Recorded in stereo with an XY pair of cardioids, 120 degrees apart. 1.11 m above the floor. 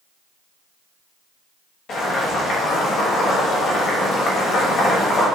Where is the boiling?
50° left, 6.5 m.